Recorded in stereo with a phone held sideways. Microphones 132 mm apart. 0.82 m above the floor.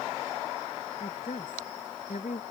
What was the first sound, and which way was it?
A woman speaking, 75° left (ahead or behind).